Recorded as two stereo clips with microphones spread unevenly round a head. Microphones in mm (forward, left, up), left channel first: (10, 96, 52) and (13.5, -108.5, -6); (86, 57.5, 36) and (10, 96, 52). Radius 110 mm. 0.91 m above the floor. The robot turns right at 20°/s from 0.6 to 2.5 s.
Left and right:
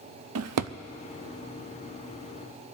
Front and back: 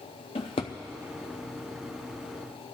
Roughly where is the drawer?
Right.